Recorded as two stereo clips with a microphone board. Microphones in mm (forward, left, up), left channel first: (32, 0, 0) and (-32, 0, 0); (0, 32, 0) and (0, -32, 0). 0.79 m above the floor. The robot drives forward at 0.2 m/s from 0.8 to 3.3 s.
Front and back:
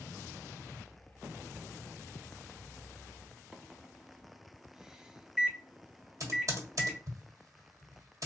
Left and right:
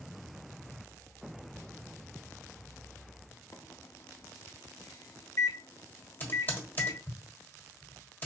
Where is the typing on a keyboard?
150° left, 1.3 m.